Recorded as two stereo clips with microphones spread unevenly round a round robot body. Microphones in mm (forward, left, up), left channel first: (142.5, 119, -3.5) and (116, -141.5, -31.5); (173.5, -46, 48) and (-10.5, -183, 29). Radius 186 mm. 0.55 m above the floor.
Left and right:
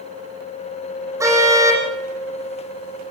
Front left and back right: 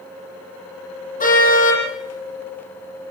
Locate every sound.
1.2 s a car horn: 15° right, 9.5 m